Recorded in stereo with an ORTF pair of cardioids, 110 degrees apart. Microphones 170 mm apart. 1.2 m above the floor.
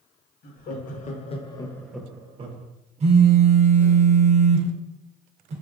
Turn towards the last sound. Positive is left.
turn(degrees=-40)